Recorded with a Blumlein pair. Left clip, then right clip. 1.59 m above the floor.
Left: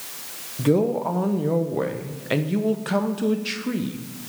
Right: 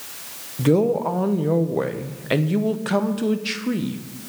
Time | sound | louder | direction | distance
0.6 | a man speaking | right 2 dB | 10° right | 0.9 m